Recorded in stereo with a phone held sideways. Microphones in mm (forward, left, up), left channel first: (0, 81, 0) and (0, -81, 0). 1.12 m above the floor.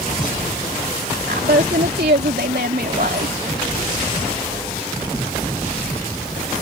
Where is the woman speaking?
70° right (ahead or behind); by 3.4 s 65° right (ahead or behind).